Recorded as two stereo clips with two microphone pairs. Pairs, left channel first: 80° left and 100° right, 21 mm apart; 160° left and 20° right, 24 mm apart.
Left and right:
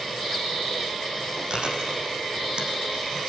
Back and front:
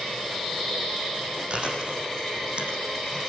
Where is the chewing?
60° right, 7 m.